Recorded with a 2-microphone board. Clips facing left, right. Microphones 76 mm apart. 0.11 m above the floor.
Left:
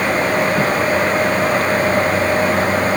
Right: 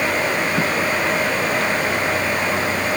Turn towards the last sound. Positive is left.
No sound to turn to.